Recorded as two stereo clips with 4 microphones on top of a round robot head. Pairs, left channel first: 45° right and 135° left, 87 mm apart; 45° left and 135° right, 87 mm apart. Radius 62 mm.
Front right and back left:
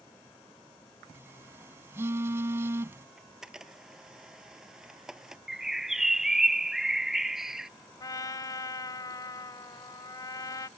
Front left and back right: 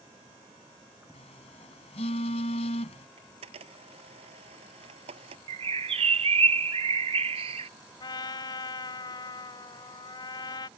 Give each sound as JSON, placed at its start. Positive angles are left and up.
{"t": 1.1, "sound": "a phone buzzing", "azimuth_deg": 70}
{"t": 3.2, "sound": "a camera shutter", "azimuth_deg": -145}
{"t": 5.5, "sound": "a bird", "azimuth_deg": -140}
{"t": 8.0, "sound": "a trumpet", "azimuth_deg": 5}